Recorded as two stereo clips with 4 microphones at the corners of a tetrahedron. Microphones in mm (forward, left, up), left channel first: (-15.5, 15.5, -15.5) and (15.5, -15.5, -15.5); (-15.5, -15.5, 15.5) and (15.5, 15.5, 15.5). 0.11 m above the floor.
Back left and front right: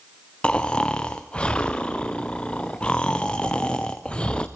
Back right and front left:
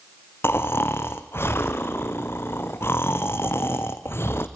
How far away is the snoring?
About 1.9 m.